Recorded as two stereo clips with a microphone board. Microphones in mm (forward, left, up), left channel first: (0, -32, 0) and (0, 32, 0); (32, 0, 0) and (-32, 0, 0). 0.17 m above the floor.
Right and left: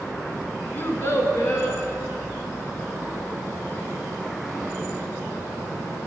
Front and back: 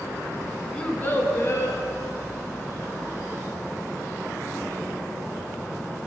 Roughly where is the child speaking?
Ahead right.